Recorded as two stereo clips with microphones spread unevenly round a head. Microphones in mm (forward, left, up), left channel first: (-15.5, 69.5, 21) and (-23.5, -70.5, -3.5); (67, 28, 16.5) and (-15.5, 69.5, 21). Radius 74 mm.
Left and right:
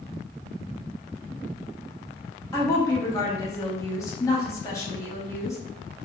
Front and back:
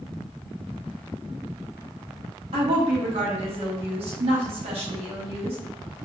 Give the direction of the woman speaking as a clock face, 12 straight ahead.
7 o'clock.